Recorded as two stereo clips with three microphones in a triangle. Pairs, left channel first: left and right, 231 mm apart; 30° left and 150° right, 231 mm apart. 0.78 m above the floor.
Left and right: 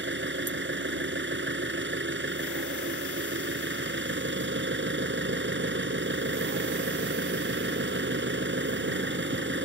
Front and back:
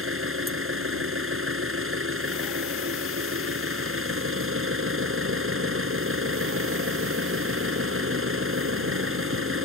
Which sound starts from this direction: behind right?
An engine running, at 0.0 s.